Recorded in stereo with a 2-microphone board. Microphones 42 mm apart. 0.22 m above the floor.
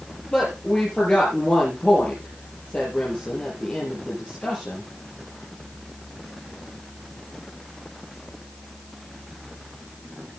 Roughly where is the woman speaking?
Left.